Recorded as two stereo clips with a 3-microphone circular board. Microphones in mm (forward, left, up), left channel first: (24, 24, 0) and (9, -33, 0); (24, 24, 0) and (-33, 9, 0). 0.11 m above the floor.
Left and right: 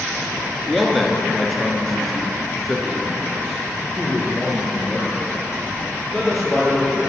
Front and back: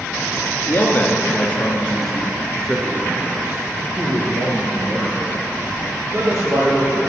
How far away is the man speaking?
About 1.5 m.